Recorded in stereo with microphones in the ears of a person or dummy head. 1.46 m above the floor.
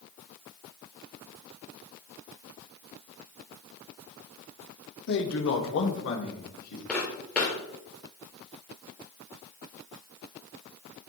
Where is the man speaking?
60° left (ahead or behind), 1.0 m; by 6.8 s 80° left, 3 m.